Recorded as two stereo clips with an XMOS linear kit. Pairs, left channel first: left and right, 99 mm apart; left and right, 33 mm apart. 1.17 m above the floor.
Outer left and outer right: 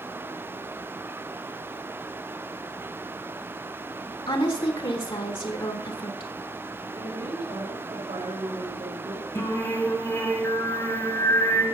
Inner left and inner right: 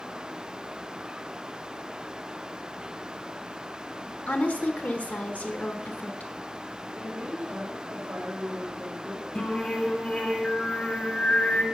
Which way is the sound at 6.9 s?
90° right.